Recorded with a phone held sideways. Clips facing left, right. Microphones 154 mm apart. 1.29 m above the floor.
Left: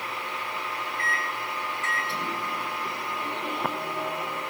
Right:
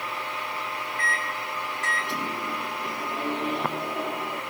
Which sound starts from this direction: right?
A microwave, at 1.0 s.